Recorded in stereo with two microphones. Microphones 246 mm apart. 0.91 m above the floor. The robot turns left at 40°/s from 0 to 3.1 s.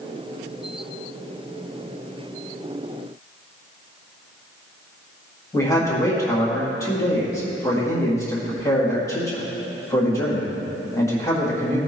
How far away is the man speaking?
About 1.6 m.